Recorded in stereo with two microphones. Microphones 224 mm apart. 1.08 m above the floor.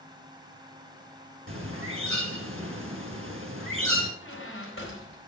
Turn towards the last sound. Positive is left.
turn(degrees=70)  # may be behind; listen again after turning